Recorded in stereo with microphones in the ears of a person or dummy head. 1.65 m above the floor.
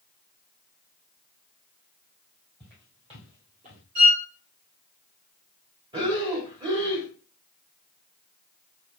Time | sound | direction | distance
2.6 | footsteps | 30° right (ahead or behind) | 2.5 m
4.0 | a violin | 65° right (ahead or behind) | 1.6 m
5.9 | breathing | 30° right (ahead or behind) | 1.8 m